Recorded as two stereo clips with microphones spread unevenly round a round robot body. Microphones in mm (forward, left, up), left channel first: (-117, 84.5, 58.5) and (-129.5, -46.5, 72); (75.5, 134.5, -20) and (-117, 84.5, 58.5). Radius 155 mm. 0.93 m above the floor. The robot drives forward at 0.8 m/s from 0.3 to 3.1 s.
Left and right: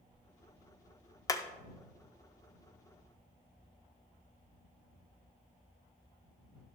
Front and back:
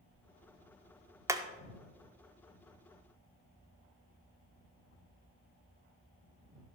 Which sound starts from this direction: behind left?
Hammering, at 1.3 s.